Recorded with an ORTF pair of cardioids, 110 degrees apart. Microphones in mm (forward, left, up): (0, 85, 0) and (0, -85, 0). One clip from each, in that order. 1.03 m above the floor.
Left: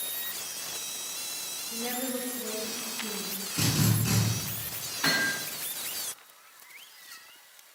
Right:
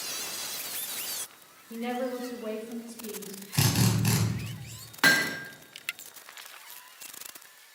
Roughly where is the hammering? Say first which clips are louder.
Right 4 dB; ahead right.